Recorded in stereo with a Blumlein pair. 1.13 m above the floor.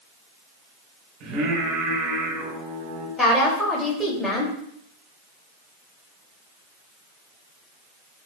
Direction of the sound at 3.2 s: 10° left.